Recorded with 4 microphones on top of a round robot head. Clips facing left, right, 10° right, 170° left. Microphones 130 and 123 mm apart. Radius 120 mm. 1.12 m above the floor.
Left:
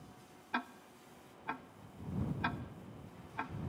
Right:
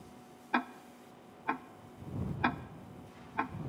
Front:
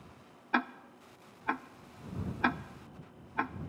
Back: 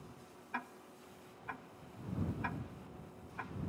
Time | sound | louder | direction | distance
0.5 | ticking | right 7 dB, front 12 dB | 35° right | ?